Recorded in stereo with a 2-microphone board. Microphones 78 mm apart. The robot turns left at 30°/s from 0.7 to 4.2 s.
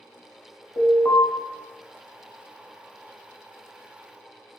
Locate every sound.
0.8 s an alarm: 40° left (ahead or behind), 1.3 m; by 1.2 s 35° left (ahead or behind), 1.3 m